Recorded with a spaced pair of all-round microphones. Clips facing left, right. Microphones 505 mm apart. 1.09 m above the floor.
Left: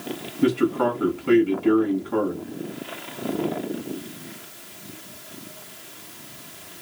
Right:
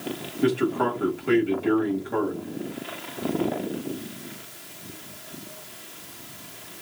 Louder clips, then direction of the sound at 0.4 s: Left 2 dB; 20° left (ahead or behind).